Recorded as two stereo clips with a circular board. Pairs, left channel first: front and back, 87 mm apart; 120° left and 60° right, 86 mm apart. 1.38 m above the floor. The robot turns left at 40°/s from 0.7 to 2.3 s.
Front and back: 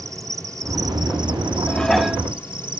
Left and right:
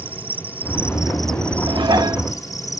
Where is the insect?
130° right; by 2.8 s 165° left.